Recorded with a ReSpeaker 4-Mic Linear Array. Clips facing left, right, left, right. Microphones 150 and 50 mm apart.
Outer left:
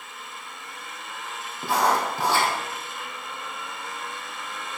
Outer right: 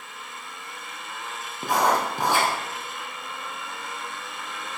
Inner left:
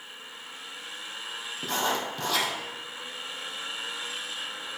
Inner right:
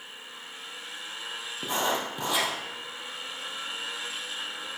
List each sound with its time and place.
1.6 s writing: 15° right (ahead or behind), 2.5 m